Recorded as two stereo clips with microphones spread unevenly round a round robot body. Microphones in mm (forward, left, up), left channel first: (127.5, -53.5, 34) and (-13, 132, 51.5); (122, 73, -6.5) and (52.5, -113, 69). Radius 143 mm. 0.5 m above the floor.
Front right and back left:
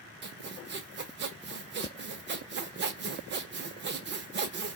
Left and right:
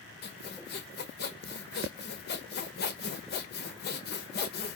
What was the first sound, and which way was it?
Sawing, 85° left.